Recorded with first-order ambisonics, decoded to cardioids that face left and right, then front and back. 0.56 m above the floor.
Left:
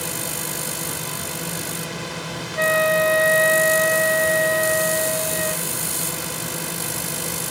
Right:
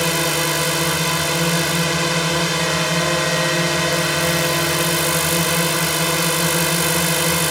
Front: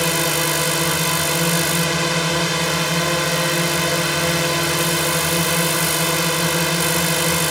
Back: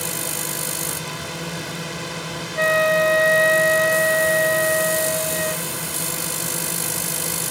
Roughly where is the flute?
Behind left.